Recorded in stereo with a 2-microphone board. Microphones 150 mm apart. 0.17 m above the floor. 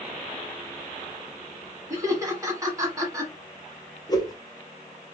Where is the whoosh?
25° left (ahead or behind), 1.3 m.